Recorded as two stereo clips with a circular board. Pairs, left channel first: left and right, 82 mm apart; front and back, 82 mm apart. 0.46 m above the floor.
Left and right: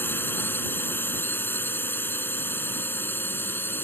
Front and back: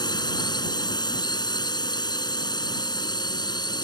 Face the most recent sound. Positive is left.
turn(degrees=30)